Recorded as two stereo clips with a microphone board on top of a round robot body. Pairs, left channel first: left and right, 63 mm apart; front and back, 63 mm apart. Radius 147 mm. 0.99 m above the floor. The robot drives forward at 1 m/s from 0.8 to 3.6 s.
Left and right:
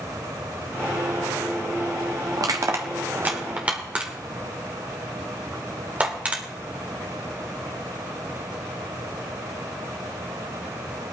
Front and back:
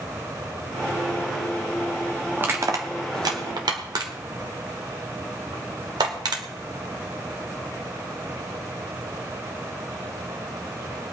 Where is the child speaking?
No child speaking in this recording.